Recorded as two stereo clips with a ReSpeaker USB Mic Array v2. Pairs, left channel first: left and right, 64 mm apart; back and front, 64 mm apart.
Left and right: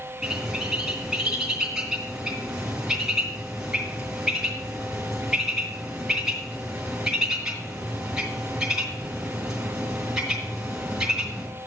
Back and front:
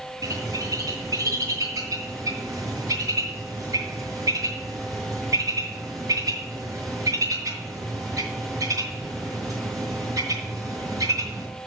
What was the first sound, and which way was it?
A bird, 10° right.